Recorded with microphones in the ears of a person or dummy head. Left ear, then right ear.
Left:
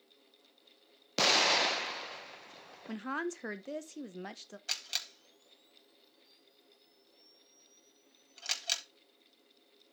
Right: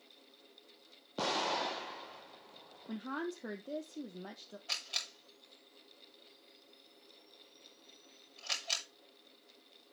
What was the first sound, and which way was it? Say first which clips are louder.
An explosion: left 8 dB; 60° left (ahead or behind).